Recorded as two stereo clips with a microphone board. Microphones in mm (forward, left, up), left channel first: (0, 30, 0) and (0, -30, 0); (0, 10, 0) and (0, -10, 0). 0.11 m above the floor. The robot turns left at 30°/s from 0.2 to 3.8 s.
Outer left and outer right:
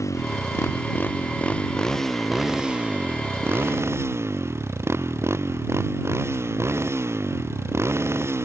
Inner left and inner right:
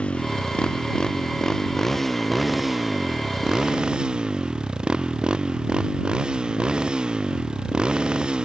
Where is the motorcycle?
60° left; by 8.4 s 50° right.